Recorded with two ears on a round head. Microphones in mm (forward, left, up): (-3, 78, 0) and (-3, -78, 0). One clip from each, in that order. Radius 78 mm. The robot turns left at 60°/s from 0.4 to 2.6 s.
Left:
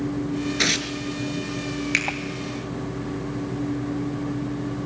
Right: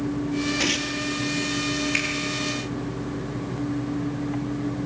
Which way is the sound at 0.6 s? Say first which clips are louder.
Left 4 dB; 80° left.